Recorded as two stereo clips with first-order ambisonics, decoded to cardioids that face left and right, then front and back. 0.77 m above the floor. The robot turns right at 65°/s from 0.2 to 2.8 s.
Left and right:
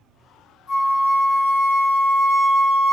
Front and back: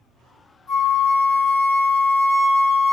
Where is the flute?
30° left, 1.6 m; by 2.9 s 170° left, 1.6 m.